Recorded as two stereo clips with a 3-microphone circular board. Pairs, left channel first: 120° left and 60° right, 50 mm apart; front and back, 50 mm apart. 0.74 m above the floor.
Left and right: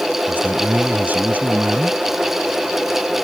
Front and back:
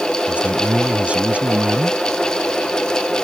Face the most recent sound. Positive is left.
turn(degrees=-115)